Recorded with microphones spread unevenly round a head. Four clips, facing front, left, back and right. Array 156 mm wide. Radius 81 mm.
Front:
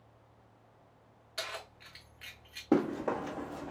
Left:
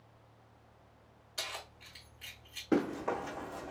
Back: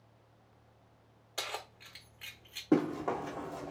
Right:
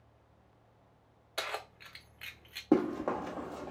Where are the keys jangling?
115° right, 0.6 m.